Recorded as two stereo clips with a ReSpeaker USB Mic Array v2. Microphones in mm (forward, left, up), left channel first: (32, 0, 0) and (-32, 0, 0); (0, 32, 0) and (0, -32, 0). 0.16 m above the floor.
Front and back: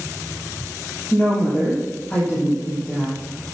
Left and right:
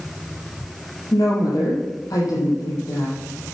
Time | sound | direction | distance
1.1 | a woman speaking | 65° left | 6 m